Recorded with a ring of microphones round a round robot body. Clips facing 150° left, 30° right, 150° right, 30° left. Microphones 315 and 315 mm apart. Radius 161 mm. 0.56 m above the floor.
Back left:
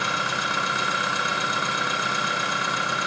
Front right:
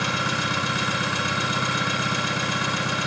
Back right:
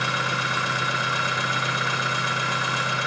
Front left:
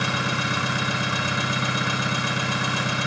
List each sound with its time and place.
0.0 s an engine running: 25° left, 6 m